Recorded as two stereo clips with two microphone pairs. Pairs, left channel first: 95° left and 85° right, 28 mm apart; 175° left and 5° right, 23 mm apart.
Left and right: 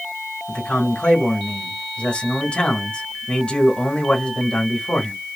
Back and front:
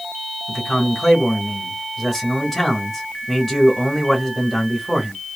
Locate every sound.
0.5 s a man speaking: 90° left, 1.5 m